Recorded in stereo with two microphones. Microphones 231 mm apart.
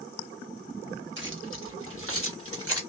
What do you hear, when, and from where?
1.2 s keys jangling: 55° right (ahead or behind), 0.9 m; by 2.8 s 75° right (ahead or behind), 1.7 m